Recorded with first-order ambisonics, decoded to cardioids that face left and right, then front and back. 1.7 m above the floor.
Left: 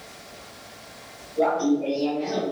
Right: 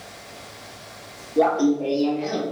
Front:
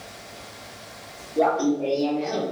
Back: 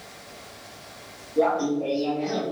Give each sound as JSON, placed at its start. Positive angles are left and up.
{"t": 1.4, "sound": "laughter", "azimuth_deg": -95, "distance_m": 1.0}